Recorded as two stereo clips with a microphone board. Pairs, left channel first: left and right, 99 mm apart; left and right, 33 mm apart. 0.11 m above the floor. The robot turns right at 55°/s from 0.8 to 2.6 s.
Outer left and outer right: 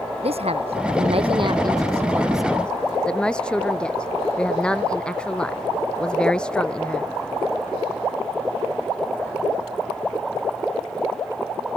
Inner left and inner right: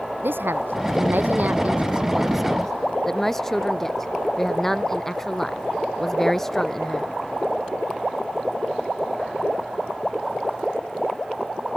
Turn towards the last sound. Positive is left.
turn(degrees=10)